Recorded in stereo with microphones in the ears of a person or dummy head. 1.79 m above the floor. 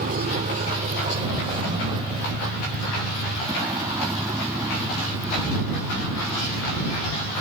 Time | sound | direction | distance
0.0 | a vehicle | 50° right (ahead or behind) | ?